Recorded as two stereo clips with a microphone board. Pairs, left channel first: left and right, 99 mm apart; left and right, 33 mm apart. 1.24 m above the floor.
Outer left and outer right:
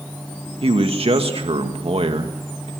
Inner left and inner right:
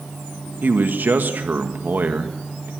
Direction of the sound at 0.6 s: 65° right (ahead or behind).